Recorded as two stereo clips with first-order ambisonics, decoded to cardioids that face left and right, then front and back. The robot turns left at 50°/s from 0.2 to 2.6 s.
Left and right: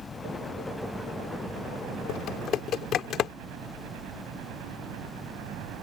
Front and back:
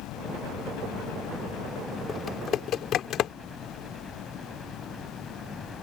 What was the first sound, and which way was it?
A helicopter, 30° left.